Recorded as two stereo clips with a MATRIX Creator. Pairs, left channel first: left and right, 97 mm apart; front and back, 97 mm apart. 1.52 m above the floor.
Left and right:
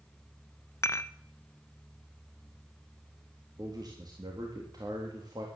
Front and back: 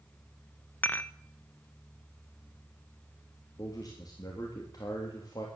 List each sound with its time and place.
0.8 s dishes clattering: 55° left, 0.7 m
3.6 s a man speaking: 45° right, 3 m